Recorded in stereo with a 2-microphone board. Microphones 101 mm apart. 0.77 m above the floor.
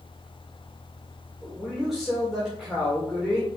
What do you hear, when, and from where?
1.4 s a man speaking: 5° right (ahead or behind), 2 m